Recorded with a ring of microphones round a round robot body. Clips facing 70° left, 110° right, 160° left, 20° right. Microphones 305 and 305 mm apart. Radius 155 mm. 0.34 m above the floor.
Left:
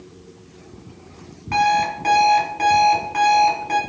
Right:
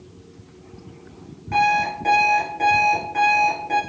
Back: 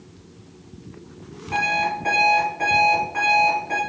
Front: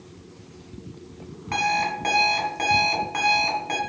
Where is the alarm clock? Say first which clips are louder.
Left 1 dB, back 1 dB; straight ahead, 2 m.